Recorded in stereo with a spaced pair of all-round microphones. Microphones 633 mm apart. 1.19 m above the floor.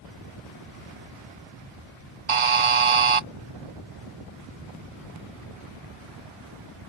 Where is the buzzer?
55° right (ahead or behind).